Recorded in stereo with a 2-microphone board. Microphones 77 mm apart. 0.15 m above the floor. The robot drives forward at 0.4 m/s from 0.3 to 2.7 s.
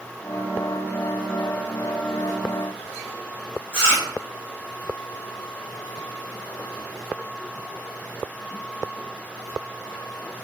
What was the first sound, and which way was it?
Chewing, 30° left (ahead or behind).